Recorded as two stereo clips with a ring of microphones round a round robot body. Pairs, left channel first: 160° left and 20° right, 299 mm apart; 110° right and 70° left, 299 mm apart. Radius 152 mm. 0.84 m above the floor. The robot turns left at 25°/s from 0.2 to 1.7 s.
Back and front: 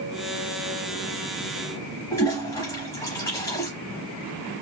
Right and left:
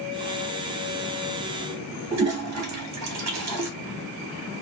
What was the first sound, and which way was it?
A toilet flushing, 80° left.